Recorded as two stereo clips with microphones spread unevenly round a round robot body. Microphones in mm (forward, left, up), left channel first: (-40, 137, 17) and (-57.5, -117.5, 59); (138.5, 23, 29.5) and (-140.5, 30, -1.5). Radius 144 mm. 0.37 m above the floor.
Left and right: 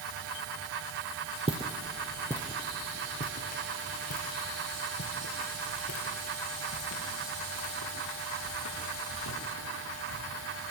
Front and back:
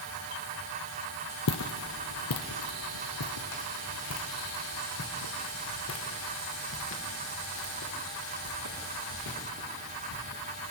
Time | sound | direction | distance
1.5 | footsteps | 30° right | 0.8 m